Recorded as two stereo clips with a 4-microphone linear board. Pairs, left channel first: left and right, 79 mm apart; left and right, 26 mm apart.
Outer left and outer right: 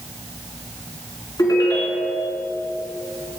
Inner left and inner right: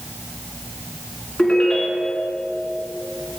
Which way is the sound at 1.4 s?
55° left (ahead or behind).